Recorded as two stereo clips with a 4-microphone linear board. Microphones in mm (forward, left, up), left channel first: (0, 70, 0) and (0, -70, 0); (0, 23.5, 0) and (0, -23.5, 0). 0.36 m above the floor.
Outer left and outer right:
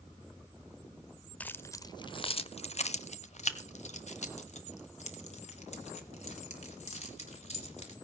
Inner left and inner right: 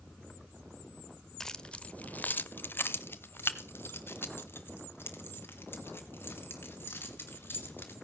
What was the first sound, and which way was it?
Keys jangling, 10° left (ahead or behind).